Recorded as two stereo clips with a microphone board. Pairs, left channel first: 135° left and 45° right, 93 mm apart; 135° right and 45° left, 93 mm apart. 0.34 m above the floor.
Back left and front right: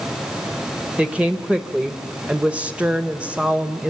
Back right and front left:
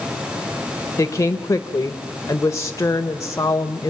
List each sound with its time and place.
1.0 s a woman speaking: 115° right, 1.0 m